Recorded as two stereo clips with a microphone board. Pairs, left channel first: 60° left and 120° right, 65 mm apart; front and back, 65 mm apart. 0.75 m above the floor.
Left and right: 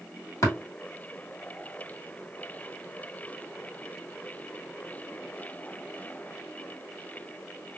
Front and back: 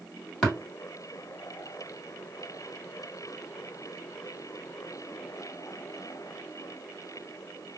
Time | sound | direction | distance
0.4 | tapping | 75° left | 2 m